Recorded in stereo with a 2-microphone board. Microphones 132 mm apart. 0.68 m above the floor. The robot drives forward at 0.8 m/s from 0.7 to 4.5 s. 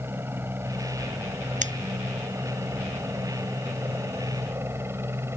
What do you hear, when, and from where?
0.0 s a helicopter: 15° right (ahead or behind); by 5.4 s 20° right (ahead or behind)
1.6 s scissors: 65° right (ahead or behind); by 1.7 s 60° right (ahead or behind)